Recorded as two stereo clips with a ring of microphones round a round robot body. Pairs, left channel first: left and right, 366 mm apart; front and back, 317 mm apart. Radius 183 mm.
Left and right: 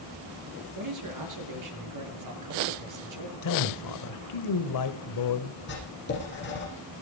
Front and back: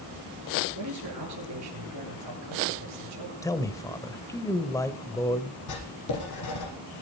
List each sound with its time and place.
0.8 s a man speaking: 130° right, 8.5 m
3.4 s a man speaking: 80° left, 1.9 m
5.7 s writing: 30° left, 10 m